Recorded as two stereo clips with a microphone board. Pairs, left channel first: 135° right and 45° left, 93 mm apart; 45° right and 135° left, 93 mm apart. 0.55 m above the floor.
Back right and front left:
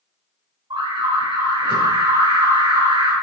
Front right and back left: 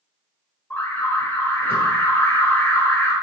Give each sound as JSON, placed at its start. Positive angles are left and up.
{"t": 0.7, "sound": "an alarm", "azimuth_deg": 20, "distance_m": 4.5}